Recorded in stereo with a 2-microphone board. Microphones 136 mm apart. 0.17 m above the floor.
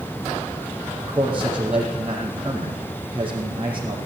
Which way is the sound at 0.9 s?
15° right (ahead or behind).